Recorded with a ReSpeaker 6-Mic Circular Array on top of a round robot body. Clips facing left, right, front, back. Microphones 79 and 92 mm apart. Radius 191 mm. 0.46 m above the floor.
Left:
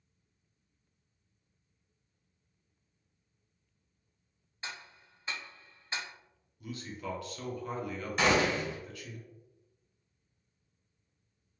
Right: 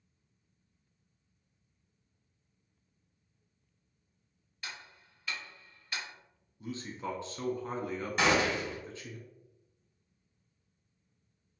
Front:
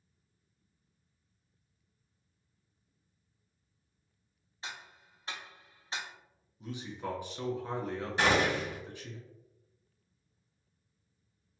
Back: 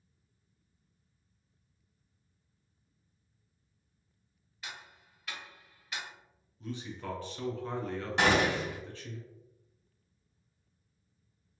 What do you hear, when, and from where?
4.6 s ticking: 40° left, 0.8 m
6.6 s a man speaking: 60° right, 1.2 m
8.2 s a gunshot: straight behind, 1.6 m